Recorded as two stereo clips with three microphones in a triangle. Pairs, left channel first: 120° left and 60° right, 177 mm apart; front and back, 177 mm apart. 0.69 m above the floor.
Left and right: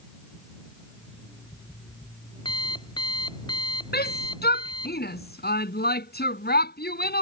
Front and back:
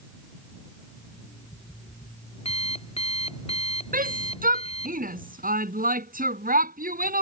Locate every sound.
1.0 s an alarm clock: 55° left
3.9 s a shout: 145° left